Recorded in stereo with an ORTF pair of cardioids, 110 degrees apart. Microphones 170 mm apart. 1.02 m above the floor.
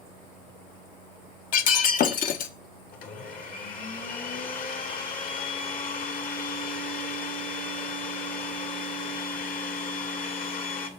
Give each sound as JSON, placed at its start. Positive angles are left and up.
{"t": 1.5, "sound": "breaking glass", "azimuth_deg": 55, "distance_m": 0.7}
{"t": 2.9, "sound": "a blender", "azimuth_deg": 55, "distance_m": 2.0}